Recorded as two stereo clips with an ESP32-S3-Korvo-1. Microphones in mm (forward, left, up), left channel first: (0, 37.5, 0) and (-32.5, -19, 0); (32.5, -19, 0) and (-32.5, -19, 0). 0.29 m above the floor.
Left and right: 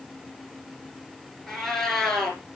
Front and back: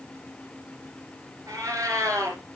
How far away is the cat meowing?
About 3 m.